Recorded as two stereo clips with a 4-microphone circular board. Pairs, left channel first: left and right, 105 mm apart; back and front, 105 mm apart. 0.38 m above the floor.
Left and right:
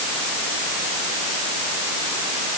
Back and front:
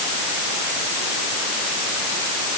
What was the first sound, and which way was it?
Only background noise.